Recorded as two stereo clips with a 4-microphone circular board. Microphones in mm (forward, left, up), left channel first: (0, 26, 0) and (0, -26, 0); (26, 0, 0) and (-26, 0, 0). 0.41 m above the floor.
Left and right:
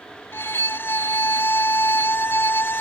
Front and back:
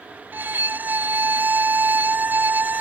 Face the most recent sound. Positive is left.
turn(degrees=130)